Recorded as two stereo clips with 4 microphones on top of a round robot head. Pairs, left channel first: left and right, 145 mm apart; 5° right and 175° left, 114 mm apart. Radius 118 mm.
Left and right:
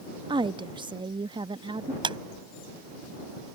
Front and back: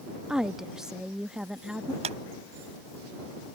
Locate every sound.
0.3 s a woman speaking: 105° right
2.0 s a clap: 145° right